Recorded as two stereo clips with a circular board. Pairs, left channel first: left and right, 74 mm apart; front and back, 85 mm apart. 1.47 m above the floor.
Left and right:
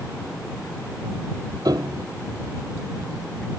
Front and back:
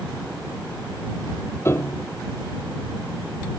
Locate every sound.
1.6 s a piano: 60° right